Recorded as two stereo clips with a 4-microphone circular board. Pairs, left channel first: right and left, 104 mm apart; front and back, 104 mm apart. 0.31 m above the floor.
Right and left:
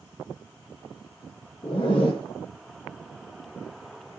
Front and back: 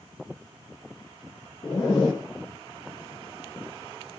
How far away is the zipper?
About 5 m.